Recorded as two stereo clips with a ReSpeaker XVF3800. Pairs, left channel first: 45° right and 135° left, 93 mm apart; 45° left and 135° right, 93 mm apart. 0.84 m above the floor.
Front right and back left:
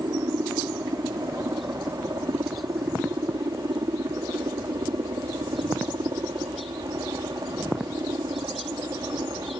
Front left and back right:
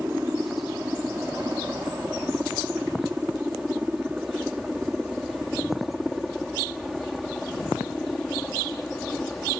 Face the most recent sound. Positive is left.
turn(degrees=125)